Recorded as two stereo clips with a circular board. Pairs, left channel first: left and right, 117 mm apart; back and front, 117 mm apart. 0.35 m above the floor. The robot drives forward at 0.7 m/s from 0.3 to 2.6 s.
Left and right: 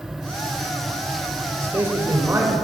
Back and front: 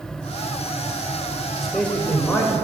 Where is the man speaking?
95° right, 1.2 m; by 2.5 s 145° right, 1.4 m.